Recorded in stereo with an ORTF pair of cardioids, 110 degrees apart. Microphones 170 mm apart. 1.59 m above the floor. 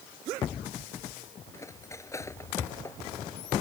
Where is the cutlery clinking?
15° left.